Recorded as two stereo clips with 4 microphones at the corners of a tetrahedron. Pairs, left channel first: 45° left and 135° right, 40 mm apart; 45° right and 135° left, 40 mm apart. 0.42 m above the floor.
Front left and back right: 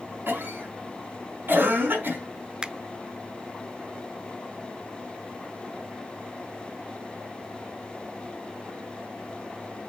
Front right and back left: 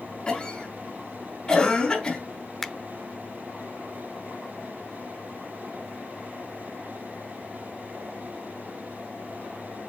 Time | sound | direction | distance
0.3 | a cough | 110° right | 5.5 m
2.6 | a finger snap | 120° right | 0.6 m